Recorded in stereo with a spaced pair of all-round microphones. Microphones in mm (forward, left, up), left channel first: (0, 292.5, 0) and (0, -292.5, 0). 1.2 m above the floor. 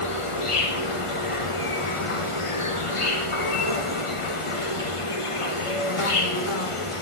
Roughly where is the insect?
Left.